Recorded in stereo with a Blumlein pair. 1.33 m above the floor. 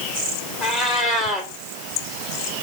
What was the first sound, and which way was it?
A cat meowing, 20° left.